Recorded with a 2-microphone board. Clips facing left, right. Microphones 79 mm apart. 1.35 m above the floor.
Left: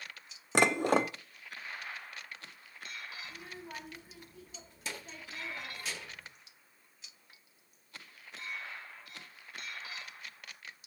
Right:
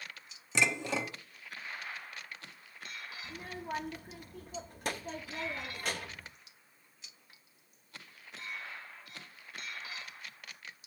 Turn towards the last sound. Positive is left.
turn(degrees=-55)  # may be behind; listen again after turning